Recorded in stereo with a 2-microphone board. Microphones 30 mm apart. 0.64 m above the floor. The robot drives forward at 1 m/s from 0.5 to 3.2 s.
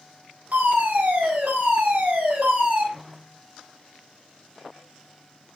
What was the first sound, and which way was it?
A fire alarm, 70° right (ahead or behind).